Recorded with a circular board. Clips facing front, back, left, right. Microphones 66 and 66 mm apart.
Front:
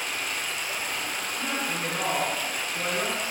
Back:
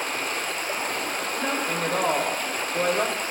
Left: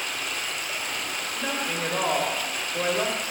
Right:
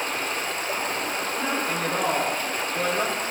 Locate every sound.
0.0 s running water: 140° right, 1.4 m
1.4 s a woman speaking: 175° left, 2.5 m